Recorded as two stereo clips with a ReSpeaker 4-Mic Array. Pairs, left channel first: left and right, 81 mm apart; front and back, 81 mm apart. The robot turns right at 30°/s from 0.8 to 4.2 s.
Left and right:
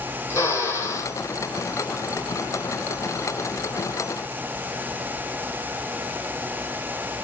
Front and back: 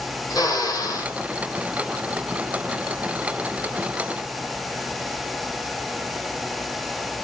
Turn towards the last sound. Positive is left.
turn(degrees=135)